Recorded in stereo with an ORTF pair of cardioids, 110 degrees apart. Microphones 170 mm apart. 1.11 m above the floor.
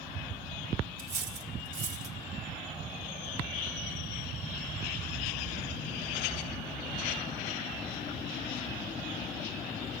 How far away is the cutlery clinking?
About 2.5 m.